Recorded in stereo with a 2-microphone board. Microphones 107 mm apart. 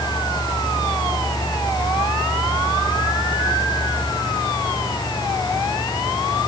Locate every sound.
Only background noise.